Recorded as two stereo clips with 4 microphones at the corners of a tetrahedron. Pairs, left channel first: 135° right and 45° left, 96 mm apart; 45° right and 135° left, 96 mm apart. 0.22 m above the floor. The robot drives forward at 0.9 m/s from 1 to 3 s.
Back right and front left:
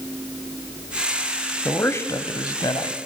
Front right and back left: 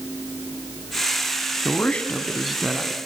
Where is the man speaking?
85° right, 1.4 m; by 3.0 s 150° right, 1.8 m.